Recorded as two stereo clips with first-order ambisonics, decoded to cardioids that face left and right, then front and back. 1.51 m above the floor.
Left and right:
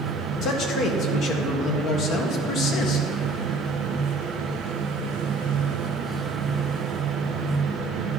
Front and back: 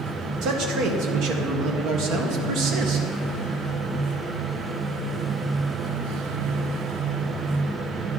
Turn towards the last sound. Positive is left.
turn(degrees=140)